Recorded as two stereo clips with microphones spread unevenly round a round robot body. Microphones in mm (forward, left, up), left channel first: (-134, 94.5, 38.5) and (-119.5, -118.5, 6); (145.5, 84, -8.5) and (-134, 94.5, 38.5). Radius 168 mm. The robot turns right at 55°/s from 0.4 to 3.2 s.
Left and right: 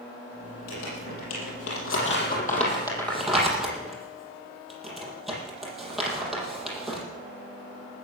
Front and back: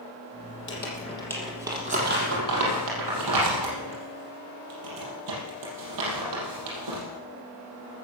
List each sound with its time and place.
0.7 s crumpling: 45° left, 6 m; by 7.0 s 175° right, 6 m